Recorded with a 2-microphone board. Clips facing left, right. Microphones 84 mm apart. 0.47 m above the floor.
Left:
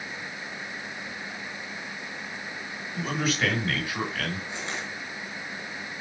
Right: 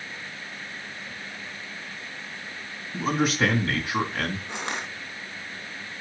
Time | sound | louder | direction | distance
2.9 | a man speaking | right 4 dB | 70° right (ahead or behind) | 3.5 m
4.5 | crushing | right 2 dB | 70° right (ahead or behind) | 2 m